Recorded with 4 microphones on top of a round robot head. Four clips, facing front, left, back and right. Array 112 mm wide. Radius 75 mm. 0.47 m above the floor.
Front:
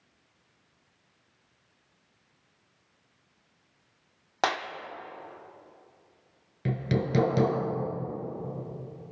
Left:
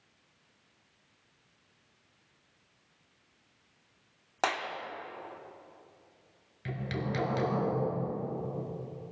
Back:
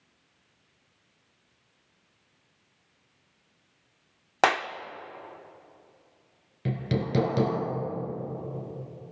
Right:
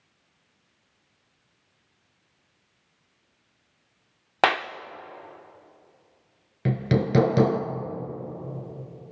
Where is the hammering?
80° right, 2.5 m.